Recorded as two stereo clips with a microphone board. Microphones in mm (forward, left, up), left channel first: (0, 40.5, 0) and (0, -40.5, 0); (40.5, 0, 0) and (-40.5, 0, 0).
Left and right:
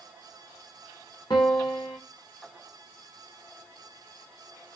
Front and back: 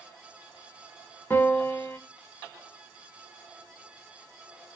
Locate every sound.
1.3 s a piano: 65° left, 1.2 m